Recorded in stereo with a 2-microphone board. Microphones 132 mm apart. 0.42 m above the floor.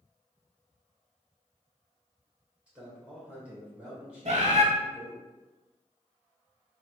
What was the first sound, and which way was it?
A man speaking, 10° right (ahead or behind).